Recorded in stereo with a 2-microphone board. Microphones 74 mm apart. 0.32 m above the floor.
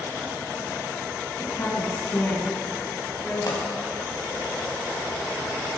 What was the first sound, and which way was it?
A woman speaking, 45° left (ahead or behind).